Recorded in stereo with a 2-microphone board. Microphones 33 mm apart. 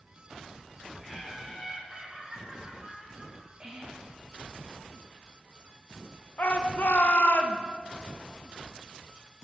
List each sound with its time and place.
1.0 s laughter: 10° right (ahead or behind), 1.1 m; by 3.5 s 45° right (ahead or behind), 2.5 m
3.6 s whispering: 25° right (ahead or behind), 1.7 m
6.4 s a shout: 60° left (ahead or behind), 0.7 m